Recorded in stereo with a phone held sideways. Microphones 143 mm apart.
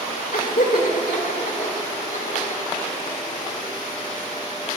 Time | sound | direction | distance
0.3 | laughter | 75° left (ahead or behind) | 1.4 m